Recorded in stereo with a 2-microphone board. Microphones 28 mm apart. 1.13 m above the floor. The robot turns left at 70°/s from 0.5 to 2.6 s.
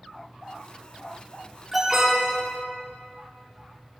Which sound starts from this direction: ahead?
An alarm, at 1.7 s.